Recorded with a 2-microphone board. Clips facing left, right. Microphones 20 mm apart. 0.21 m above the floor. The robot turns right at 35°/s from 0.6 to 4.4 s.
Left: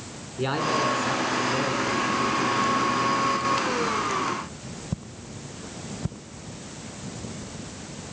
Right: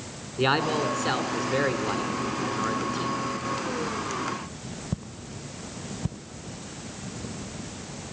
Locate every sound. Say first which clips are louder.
0.4 s a man speaking: right 1 dB; 145° right, 2 m; by 3.2 s 55° right, 2 m